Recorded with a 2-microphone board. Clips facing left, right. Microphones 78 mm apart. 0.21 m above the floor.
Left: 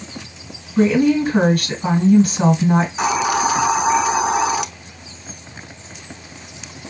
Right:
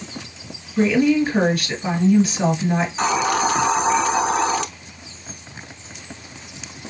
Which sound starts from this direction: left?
A woman speaking, at 0.8 s.